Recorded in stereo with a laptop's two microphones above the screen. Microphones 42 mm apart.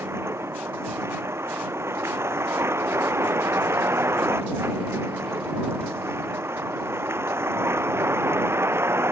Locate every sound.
0.0 s a vehicle: 85° right; by 9.1 s 75° right (ahead or behind)